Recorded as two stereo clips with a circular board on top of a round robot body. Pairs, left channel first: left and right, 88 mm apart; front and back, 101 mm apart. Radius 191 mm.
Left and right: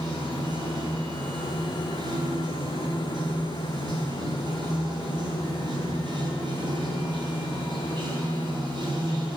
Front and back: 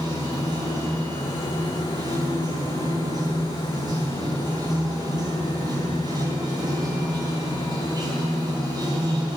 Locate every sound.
0.0 s running water: 130° right, 4 m